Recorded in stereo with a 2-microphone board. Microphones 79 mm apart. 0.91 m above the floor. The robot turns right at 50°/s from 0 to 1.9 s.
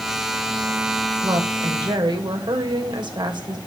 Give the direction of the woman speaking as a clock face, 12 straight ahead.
4 o'clock.